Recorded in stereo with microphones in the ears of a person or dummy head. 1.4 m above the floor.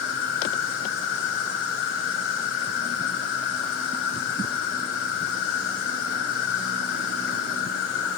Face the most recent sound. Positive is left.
turn(degrees=70)  # may be behind; listen again after turning